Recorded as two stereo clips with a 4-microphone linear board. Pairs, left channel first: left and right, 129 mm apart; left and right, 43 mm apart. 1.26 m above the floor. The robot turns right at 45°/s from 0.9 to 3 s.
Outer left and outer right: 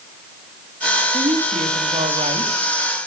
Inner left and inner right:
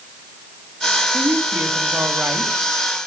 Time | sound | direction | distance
1.1 | a woman speaking | 120° right | 1.7 m